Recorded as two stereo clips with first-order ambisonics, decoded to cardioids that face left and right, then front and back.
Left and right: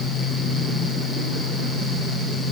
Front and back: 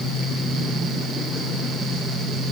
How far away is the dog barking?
I don't hear a dog barking.